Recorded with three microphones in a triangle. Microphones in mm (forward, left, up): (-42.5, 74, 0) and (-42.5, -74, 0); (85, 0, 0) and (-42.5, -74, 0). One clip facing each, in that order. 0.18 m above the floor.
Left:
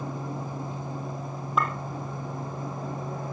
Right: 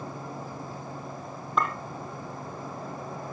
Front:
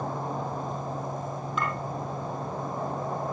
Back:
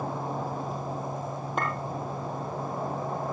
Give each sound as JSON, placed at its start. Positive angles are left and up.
{"t": 1.6, "sound": "a clink", "azimuth_deg": 175, "distance_m": 4.5}